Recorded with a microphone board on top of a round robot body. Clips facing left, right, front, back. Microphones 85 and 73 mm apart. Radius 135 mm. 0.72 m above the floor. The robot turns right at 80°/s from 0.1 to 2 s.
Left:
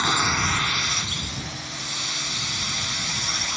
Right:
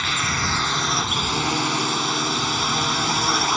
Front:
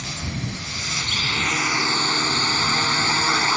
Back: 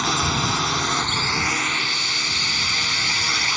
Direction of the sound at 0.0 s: 155° left.